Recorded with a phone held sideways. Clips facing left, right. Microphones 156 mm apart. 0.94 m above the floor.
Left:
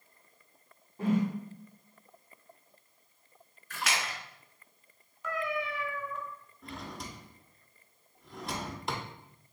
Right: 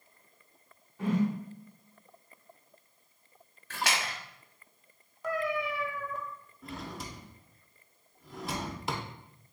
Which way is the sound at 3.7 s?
85° right.